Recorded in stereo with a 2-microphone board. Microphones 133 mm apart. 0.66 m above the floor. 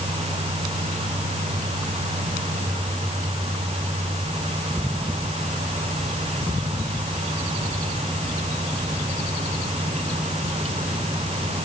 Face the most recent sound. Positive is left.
No sound to turn to.